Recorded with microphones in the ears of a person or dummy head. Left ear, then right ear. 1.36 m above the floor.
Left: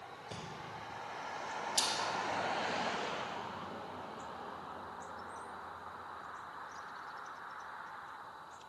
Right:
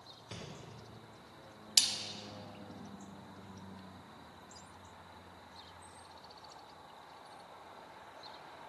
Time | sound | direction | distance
0.3 | breathing | centre (ahead or behind) | 2 m
1.8 | a splash | 65° right (ahead or behind) | 0.9 m